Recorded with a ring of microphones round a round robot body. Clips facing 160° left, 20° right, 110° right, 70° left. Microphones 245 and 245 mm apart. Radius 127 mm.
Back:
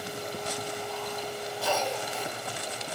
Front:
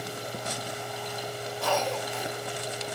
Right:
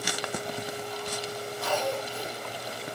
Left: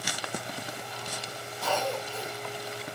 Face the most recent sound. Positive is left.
turn(degrees=75)